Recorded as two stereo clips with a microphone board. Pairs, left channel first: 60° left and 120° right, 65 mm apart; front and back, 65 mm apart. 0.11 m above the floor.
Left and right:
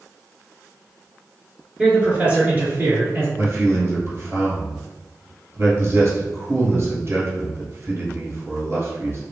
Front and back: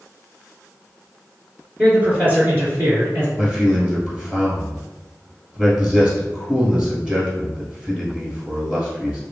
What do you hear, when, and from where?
1.8 s a man speaking: 170° right, 1.3 m; by 3.3 s 155° right, 1.7 m
3.4 s a man speaking: 115° right, 1.6 m